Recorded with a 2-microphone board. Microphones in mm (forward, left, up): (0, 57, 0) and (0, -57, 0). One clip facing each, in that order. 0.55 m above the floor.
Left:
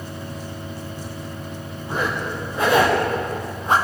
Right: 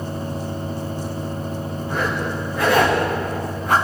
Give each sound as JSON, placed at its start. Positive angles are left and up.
{"t": 1.9, "sound": "a zipper", "side_deg": 25, "distance_m": 9.0}